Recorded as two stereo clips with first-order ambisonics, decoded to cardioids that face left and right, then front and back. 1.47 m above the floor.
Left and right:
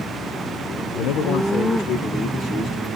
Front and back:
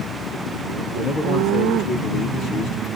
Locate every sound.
0.9 s a man speaking: 80° left, 0.7 m; by 2.9 s 25° left, 1.5 m